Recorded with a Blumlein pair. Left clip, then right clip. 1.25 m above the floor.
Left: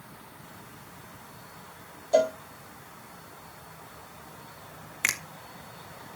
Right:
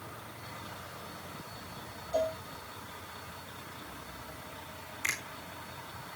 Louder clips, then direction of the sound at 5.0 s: Left 6 dB; 40° left.